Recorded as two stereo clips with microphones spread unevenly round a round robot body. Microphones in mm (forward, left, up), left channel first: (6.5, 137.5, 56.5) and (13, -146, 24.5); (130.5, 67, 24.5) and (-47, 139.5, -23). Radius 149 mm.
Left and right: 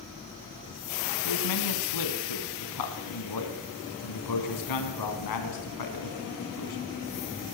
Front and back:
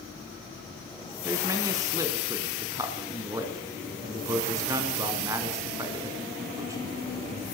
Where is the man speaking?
90° left, 4 m.